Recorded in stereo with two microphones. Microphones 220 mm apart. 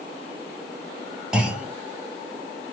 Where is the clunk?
5° right (ahead or behind), 2.0 m.